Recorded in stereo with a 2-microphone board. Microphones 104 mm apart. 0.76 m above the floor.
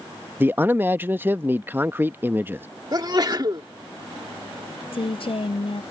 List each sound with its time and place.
0.4 s a man speaking: 20° right (ahead or behind)
2.9 s a sneeze: 40° right (ahead or behind)
4.9 s a woman speaking: 60° left (ahead or behind)